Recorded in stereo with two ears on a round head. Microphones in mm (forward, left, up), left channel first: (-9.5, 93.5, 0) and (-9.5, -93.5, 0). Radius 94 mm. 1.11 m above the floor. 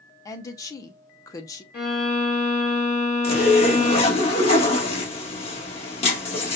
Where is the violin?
50° left (ahead or behind), 2.0 m.